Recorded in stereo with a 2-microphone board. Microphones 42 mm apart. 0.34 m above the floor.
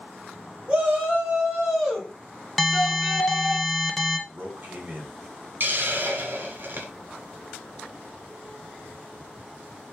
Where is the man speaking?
45° right (ahead or behind), 1.3 m.